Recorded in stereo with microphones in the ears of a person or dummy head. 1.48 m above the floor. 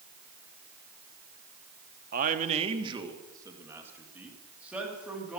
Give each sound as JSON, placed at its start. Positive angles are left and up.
{"t": 2.1, "sound": "a man speaking", "side_deg": -45, "distance_m": 1.0}